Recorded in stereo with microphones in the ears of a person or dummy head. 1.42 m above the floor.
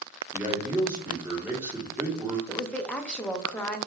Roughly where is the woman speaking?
Centre.